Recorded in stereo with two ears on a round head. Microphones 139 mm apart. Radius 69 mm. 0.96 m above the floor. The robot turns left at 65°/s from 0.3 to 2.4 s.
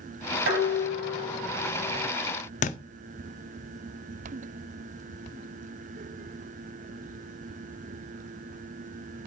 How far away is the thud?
About 0.7 m.